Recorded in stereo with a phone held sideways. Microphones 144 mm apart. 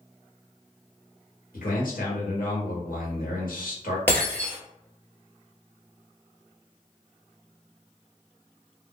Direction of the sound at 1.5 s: 80° left.